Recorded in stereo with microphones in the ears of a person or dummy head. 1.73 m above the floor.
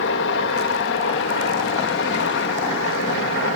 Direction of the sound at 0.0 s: 65° left (ahead or behind).